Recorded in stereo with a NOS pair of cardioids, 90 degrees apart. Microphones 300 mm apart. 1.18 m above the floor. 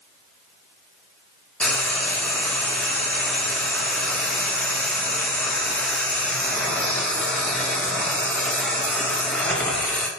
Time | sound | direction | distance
1.6 | frying | 5° left | 0.5 m